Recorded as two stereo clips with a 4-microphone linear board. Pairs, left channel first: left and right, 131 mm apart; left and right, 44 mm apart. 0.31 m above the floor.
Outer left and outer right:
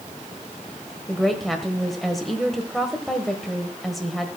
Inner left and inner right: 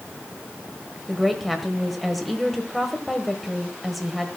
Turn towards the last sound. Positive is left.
turn(degrees=0)  # may be behind; listen again after turning